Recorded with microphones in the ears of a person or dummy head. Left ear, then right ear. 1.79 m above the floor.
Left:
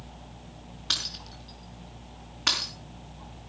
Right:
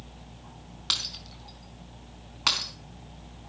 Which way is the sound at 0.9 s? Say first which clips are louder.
Even; 55° right (ahead or behind).